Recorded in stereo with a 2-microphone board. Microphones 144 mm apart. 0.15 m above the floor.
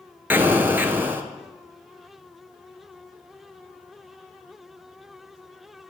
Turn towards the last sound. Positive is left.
turn(degrees=-15)  # may be behind; listen again after turning